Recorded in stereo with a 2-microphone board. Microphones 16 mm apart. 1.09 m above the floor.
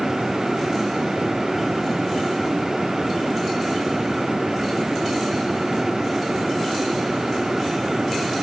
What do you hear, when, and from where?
Only background noise.